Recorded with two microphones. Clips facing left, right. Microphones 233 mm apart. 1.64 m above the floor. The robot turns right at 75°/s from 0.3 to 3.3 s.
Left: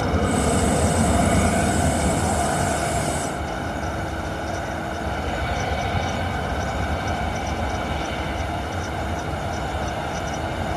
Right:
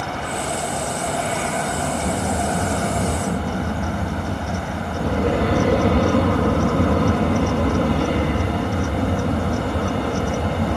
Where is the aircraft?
45° left (ahead or behind); by 10.8 s 65° right (ahead or behind).